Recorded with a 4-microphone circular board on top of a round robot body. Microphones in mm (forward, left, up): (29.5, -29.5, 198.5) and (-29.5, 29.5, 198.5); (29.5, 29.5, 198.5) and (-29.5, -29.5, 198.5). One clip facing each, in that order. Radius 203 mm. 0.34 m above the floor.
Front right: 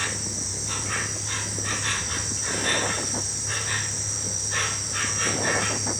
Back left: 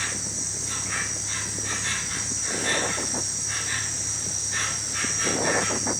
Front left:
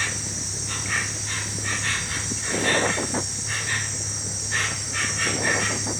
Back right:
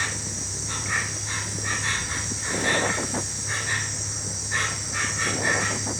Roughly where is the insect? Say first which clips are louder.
Front right 2 dB, even; right.